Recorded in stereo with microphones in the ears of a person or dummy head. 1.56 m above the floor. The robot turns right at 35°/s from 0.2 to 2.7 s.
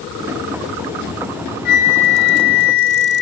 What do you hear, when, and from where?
1.6 s a flute: 70° left, 1.6 m; by 3.2 s 110° left, 1.6 m